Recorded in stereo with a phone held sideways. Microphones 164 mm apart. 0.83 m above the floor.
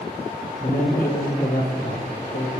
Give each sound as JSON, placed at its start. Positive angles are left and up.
{"t": 0.6, "sound": "a man speaking", "side_deg": 60, "distance_m": 1.6}